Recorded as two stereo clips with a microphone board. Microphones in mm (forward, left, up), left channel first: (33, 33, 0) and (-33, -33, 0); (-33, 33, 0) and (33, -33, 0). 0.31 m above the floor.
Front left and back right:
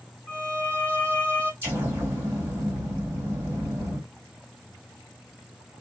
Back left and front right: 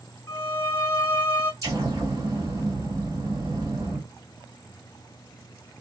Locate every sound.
0.3 s a violin: 110° left, 1.4 m
1.6 s an explosion: 80° right, 2 m